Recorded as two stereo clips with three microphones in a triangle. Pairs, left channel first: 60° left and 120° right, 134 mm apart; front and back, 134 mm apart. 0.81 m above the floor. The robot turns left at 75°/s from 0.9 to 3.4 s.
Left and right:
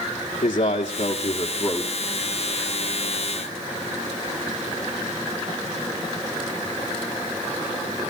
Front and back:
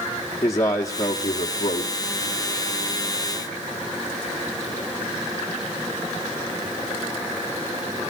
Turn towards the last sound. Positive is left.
turn(degrees=-125)